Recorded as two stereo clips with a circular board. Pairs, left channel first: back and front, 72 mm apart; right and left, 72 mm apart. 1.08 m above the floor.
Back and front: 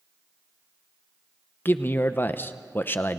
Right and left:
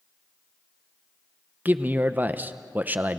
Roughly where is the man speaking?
Behind left.